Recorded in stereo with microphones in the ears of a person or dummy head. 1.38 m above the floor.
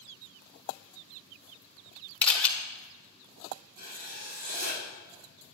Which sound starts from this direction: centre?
A camera shutter, at 2.2 s.